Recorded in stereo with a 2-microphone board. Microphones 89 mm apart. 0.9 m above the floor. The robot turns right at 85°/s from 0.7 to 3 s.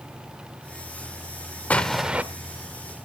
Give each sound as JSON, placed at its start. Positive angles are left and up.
{"t": 1.7, "sound": "an explosion", "azimuth_deg": 160, "distance_m": 0.7}